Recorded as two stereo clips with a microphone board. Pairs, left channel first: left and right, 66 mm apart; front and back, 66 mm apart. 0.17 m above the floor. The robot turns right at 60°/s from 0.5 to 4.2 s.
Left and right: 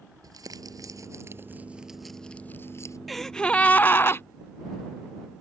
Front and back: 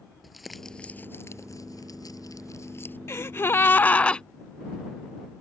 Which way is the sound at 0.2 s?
90° right.